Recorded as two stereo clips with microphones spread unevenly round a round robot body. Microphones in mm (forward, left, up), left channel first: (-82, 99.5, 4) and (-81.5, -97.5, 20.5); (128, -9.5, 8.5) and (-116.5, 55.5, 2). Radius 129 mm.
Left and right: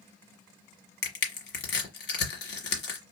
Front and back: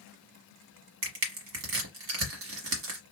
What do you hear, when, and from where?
1.0 s crushing: 125° left, 1.3 m